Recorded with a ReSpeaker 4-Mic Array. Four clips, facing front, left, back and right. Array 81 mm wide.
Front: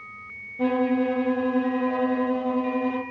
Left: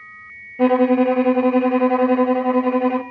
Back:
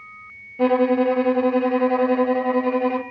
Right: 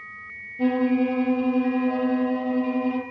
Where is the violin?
115° left, 0.6 m.